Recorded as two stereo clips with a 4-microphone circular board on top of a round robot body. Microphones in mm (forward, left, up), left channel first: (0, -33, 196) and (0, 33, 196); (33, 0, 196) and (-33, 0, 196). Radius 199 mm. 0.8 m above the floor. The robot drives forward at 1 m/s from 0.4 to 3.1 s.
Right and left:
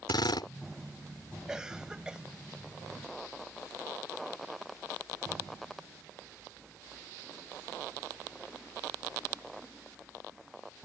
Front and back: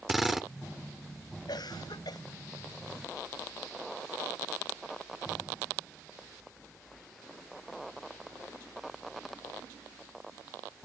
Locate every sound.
0.1 s a drill: 95° right
1.5 s a cough: 10° left